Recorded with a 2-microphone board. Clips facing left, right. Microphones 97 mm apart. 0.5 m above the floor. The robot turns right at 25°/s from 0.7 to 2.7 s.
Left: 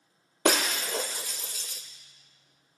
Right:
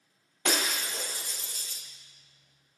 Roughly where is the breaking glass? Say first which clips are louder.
Left 5 dB; left.